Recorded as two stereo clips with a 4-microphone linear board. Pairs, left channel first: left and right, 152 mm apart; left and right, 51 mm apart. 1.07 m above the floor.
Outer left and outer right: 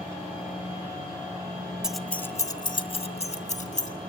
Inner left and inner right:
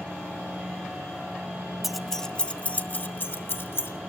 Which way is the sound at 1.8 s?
5° right (ahead or behind).